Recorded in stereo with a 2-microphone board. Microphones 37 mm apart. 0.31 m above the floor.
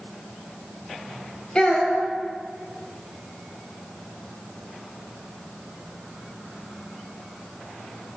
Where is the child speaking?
30° left (ahead or behind), 0.8 m.